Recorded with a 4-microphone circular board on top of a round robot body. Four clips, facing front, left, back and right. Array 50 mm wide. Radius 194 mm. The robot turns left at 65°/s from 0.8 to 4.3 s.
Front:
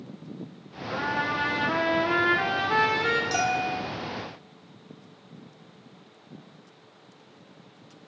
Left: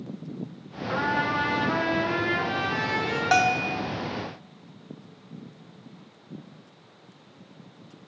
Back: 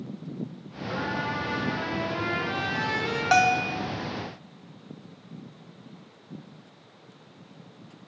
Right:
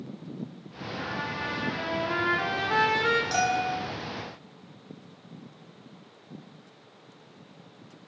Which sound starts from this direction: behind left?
A bell, at 3.3 s.